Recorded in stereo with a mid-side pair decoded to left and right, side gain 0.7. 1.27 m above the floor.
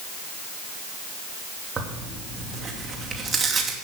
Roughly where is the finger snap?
No finger snap in this recording.